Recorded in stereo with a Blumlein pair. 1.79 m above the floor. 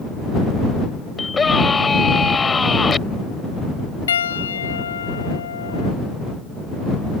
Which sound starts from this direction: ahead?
A scream, at 1.2 s.